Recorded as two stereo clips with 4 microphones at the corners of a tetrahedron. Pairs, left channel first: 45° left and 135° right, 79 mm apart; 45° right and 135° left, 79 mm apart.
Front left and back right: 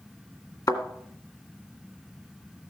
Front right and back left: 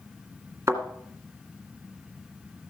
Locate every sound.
0.7 s a thud: 80° left, 2 m